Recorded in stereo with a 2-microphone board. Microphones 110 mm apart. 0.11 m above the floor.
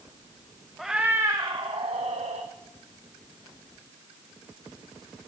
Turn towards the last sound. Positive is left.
turn(degrees=-75)  # may be behind; listen again after turning